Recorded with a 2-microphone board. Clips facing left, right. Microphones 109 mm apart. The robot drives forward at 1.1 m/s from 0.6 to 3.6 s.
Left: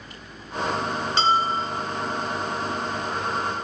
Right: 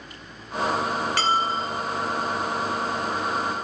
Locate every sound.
1.2 s a bell: 25° left (ahead or behind), 1.0 m; by 1.8 s 15° left (ahead or behind), 1.7 m